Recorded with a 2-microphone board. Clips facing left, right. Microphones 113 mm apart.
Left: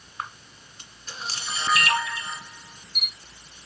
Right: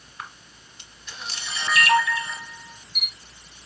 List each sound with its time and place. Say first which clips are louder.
0.2 s a camera shutter: left 4 dB; 35° left (ahead or behind), 2.5 m